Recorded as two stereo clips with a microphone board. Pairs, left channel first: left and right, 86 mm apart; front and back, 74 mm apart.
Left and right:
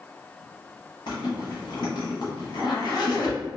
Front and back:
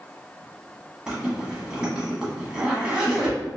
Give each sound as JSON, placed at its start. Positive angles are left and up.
{"t": 1.1, "sound": "a zipper", "azimuth_deg": 100, "distance_m": 1.0}